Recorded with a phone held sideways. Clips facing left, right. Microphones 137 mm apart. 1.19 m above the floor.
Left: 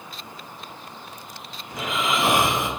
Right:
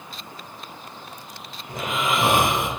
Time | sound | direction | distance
1.7 | snoring | 55° right (ahead or behind) | 1.7 m